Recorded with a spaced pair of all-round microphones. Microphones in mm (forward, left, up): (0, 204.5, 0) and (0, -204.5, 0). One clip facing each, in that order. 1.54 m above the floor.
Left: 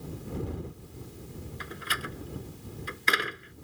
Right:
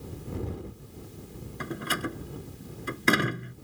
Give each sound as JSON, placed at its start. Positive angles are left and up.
{"t": 1.6, "sound": "a door slam", "side_deg": -60}